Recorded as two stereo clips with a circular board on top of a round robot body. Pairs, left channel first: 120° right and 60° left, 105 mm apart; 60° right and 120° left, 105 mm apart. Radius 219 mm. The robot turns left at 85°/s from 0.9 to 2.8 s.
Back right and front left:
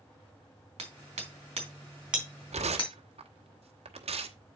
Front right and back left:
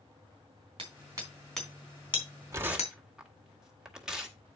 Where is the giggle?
I don't hear a giggle.